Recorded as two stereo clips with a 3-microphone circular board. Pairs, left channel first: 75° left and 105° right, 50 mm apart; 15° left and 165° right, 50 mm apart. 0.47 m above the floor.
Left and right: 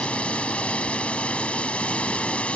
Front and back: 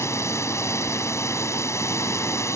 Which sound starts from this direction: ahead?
A drone, at 0.0 s.